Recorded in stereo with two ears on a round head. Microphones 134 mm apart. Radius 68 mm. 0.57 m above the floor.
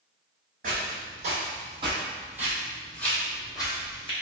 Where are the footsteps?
60° right (ahead or behind), 1.2 m; by 4.1 s 35° left (ahead or behind), 1.2 m.